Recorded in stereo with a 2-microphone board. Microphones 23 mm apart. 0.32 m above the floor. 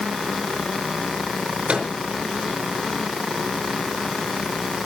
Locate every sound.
1.7 s a microwave: 50° right (ahead or behind), 5 m